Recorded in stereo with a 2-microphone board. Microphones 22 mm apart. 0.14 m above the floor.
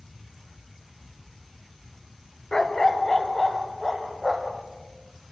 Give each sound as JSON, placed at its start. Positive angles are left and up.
{"t": 2.5, "sound": "a dog barking", "side_deg": 30, "distance_m": 0.9}